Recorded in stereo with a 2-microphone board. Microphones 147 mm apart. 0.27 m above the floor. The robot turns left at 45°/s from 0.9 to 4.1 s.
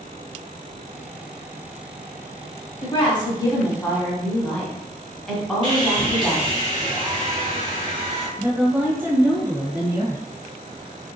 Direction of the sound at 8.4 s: 15° right (ahead or behind).